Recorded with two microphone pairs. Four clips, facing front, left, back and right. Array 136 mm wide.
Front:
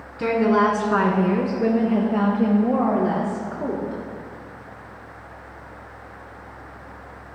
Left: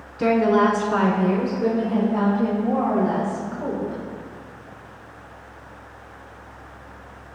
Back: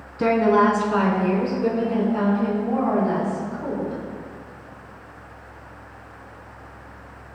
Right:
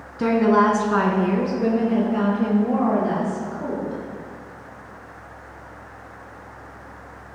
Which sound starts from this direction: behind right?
A woman speaking, at 0.2 s.